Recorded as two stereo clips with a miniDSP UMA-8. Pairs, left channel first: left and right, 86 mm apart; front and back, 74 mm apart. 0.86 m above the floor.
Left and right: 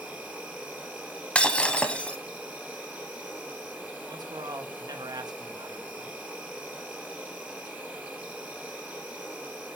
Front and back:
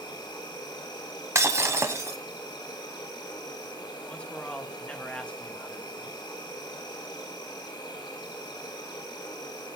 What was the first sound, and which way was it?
An insect, 20° right.